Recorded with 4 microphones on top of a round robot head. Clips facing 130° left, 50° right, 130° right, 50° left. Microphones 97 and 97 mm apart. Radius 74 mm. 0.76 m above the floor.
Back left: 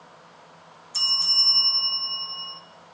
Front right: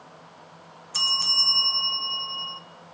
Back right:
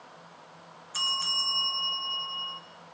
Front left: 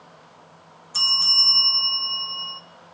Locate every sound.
0.9 s a bell: 15° right, 0.6 m